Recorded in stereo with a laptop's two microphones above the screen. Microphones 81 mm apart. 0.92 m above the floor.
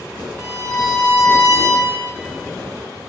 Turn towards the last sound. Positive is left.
turn(degrees=70)  # may be behind; listen again after turning